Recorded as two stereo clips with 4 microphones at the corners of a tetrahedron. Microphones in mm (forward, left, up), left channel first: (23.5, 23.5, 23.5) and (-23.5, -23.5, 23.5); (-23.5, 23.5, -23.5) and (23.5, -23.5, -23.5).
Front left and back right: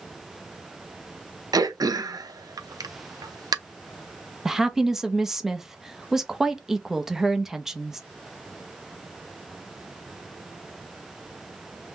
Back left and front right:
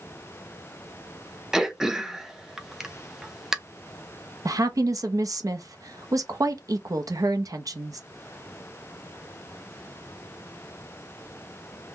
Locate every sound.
1.5 s throat clearing: 130° right, 0.5 m
4.5 s a woman speaking: 55° right, 0.5 m